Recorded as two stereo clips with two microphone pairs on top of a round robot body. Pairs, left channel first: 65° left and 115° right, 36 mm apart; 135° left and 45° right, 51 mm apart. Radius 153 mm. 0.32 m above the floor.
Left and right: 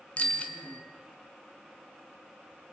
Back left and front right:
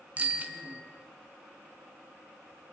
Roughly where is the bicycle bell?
Ahead.